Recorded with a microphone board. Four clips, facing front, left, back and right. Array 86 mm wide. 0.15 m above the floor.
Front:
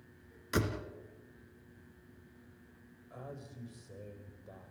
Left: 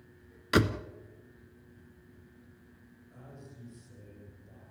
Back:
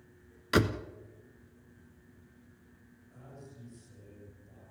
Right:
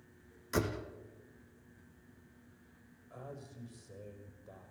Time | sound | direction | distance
0.5 | a door slam | 120° left | 1.2 m
3.1 | a man speaking | 35° right | 7 m